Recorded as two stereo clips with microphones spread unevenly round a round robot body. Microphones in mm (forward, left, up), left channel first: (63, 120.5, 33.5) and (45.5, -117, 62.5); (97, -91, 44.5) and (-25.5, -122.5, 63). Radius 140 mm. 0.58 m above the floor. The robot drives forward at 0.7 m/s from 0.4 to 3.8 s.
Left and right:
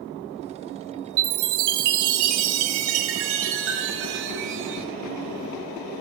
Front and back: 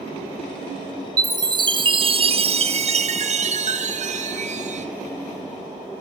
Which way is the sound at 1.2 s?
105° right.